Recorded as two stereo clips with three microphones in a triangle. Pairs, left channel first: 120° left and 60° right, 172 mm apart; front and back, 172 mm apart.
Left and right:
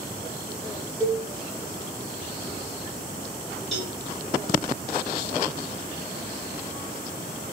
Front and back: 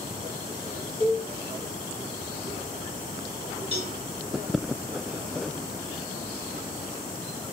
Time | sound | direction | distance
1.0 | a cowbell | 30° right | 1.4 m
3.7 | a cowbell | 155° right | 1.7 m